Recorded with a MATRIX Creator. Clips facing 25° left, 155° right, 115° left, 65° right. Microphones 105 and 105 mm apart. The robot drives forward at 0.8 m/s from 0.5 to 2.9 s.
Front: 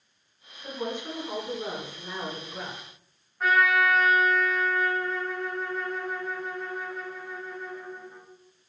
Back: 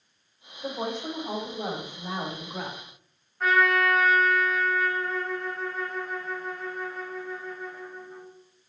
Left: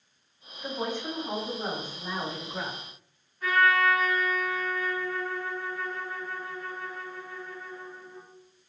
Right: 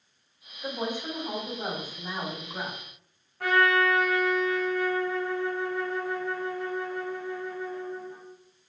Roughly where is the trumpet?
Ahead right.